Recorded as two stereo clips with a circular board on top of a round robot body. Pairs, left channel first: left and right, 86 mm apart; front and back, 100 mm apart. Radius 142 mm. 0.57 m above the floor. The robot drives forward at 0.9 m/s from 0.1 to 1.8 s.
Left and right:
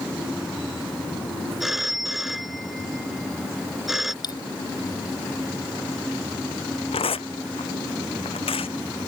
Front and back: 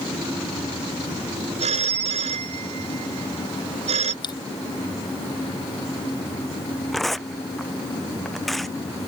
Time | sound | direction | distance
1.6 | a phone ringing | straight behind | ?
4.2 | a dropped coin | 50° left | ?
6.9 | tearing paper | 90° left | ?